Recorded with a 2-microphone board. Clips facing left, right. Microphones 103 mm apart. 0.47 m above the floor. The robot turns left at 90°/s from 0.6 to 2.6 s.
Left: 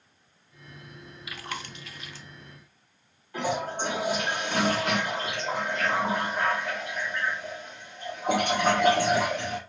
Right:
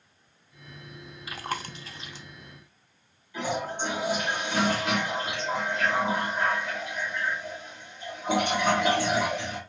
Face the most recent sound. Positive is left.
turn(degrees=55)  # may be behind; listen again after turning